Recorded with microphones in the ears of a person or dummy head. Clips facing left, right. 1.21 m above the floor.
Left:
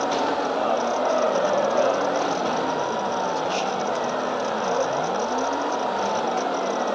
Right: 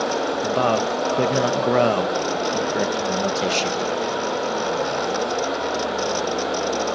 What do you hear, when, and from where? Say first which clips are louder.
0.4 s a man speaking: right 3 dB; 75° right (ahead or behind), 1.1 m